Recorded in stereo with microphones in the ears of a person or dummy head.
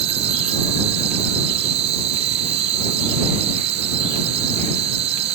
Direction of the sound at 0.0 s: 35° right (ahead or behind).